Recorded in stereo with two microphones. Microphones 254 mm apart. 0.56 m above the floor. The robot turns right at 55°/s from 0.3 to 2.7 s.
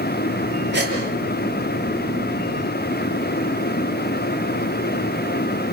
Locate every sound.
0.7 s a gasp: 45° right (ahead or behind), 7 m; by 0.9 s 30° right (ahead or behind), 7 m